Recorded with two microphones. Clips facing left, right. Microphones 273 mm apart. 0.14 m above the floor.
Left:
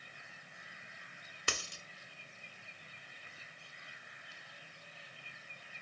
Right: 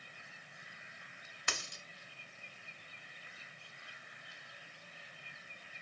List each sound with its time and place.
1.5 s a dropped coin: 35° left (ahead or behind), 0.6 m